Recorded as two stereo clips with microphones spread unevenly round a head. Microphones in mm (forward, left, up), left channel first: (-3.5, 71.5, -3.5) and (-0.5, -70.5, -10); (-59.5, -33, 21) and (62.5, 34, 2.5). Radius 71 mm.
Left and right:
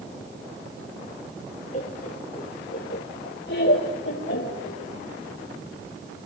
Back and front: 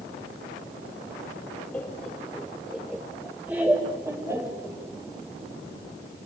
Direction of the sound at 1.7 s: 130° left.